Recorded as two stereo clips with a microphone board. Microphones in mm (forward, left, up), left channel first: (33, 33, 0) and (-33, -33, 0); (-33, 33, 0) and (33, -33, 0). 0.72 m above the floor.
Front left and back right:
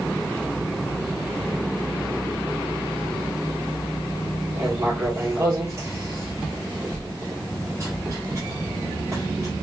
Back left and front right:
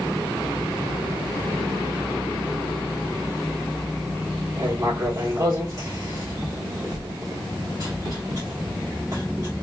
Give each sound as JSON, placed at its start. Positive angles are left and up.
{"t": 4.6, "sound": "writing", "azimuth_deg": -85, "distance_m": 1.7}